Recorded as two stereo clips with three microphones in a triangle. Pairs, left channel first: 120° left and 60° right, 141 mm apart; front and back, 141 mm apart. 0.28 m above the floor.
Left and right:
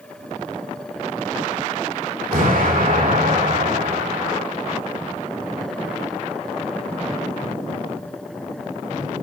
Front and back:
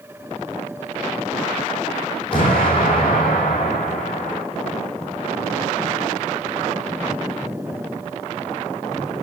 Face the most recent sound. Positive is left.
turn(degrees=-50)